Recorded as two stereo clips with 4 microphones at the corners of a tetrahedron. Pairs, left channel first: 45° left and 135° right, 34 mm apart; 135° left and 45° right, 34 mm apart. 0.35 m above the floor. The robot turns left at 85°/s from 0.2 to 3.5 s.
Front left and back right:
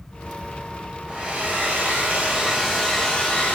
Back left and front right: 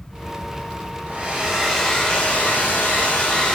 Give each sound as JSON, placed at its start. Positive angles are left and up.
{"t": 1.1, "sound": "a hair dryer", "azimuth_deg": -75, "distance_m": 1.4}